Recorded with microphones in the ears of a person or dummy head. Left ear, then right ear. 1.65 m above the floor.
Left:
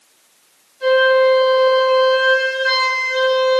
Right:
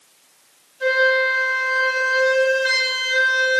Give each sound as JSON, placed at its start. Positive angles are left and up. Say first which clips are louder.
{"t": 0.8, "sound": "a flute", "louder": "left 4 dB", "side_deg": -35, "distance_m": 1.2}